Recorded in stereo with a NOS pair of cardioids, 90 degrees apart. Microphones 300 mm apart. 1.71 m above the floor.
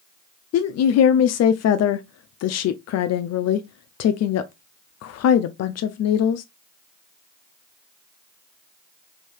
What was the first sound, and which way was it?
A woman speaking, 60° left.